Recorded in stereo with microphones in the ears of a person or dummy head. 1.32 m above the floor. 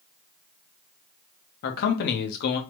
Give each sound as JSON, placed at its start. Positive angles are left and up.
{"t": 1.6, "sound": "a man speaking", "side_deg": 55, "distance_m": 0.7}